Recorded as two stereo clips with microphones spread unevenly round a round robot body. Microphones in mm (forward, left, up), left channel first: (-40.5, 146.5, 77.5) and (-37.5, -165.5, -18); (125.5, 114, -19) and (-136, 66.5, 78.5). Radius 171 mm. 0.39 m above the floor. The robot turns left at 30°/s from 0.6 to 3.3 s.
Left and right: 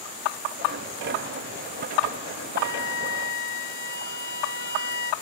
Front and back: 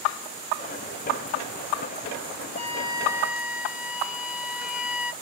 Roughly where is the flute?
Left.